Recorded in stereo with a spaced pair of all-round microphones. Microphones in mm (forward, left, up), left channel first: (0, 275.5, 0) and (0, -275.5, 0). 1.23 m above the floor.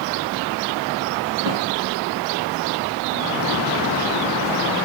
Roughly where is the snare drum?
Right.